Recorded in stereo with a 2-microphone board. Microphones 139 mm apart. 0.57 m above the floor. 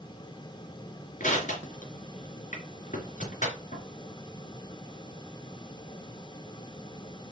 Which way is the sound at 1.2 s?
65° left (ahead or behind).